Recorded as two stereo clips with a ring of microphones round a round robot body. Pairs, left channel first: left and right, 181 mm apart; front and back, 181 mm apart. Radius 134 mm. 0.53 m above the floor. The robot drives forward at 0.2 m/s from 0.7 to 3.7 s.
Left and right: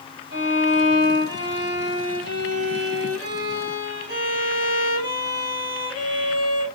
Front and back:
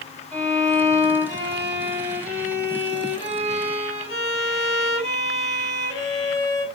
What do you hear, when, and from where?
0.3 s a violin: 90° right, 4 m; by 6.7 s 100° right, 4 m